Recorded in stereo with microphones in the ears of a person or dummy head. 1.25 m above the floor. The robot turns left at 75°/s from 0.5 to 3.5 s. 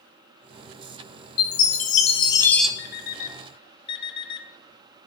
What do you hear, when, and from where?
1.4 s a chime: 95° left, 0.8 m; by 2.7 s straight ahead, 0.8 m
2.8 s an alarm clock: 65° left (ahead or behind), 1.0 m; by 4.5 s 30° left (ahead or behind), 1.0 m